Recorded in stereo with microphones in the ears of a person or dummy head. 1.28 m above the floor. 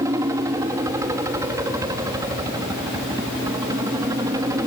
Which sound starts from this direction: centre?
A helicopter, at 0.0 s.